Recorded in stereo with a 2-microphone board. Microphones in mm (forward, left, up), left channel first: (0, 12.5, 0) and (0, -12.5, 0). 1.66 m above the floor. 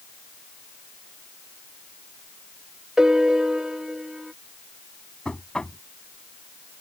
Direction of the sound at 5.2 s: 40° left (ahead or behind).